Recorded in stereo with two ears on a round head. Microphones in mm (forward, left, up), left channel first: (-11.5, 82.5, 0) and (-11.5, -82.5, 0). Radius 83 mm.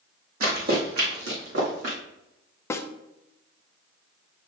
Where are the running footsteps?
50° right (ahead or behind), 2.5 m; by 2.0 s 65° right (ahead or behind), 3.5 m.